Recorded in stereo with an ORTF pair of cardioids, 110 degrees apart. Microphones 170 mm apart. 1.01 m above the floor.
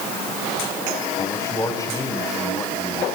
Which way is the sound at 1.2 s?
20° left.